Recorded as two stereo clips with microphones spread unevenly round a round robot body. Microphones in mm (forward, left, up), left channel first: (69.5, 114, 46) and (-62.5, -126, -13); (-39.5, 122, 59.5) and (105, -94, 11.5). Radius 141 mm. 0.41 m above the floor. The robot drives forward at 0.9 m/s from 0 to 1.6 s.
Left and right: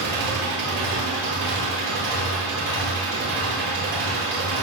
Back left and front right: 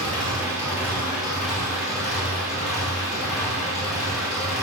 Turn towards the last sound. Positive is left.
turn(degrees=-150)